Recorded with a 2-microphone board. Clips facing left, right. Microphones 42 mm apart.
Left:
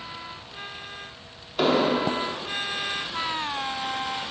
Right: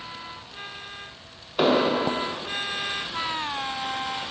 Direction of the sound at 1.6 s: 15° right (ahead or behind).